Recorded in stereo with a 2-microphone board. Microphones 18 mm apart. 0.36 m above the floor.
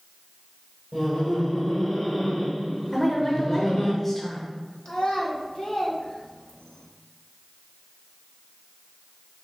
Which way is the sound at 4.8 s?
65° left (ahead or behind).